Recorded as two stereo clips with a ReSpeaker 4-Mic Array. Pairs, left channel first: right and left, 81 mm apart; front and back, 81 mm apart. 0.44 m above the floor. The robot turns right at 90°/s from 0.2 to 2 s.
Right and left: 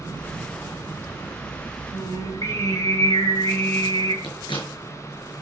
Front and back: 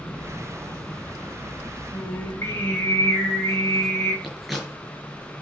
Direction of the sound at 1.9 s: 60° right.